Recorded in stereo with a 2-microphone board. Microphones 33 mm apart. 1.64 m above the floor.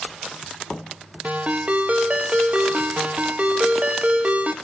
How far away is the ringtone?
About 1.1 m.